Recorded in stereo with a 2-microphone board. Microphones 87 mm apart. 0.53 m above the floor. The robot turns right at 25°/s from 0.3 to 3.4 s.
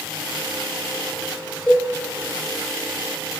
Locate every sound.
1.7 s a cowbell: 10° left (ahead or behind), 0.6 m; by 1.9 s 5° left (ahead or behind), 0.6 m